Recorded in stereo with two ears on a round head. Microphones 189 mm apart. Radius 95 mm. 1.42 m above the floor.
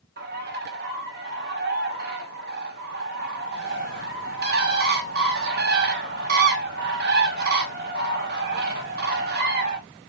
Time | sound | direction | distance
0.2 | a bird | 45° right (ahead or behind) | 1.0 m